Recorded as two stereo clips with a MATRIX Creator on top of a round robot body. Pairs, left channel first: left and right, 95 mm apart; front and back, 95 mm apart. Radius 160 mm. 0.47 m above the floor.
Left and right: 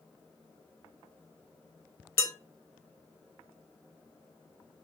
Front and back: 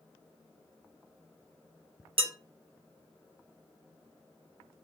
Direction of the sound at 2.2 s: 155° left.